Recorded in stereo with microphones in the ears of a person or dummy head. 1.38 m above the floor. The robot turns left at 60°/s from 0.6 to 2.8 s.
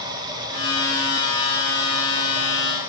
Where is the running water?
15° right, 3 m; by 2.9 s 150° right, 3 m.